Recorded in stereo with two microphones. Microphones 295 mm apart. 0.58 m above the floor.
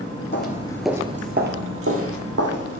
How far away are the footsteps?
About 0.7 m.